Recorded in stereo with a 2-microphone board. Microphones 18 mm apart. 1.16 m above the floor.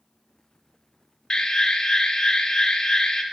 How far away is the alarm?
About 1.7 m.